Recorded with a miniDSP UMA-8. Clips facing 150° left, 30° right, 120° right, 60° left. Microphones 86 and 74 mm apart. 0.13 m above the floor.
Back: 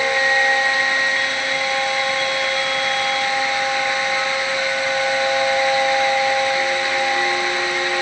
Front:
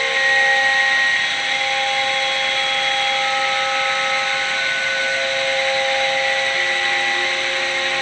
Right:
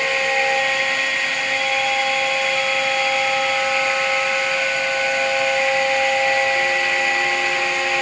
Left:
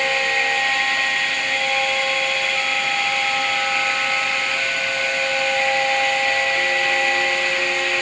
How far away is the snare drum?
I don't hear a snare drum.